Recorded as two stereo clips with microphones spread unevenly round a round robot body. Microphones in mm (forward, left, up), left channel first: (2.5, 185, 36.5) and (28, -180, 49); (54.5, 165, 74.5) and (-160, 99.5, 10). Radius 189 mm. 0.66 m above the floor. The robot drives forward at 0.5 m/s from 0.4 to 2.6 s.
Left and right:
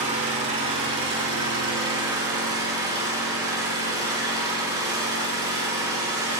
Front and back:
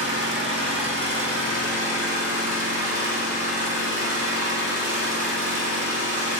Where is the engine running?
160° right, 2 m; by 6.4 s 165° right, 3 m.